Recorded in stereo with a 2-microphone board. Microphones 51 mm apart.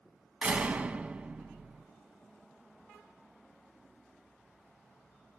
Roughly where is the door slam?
Right.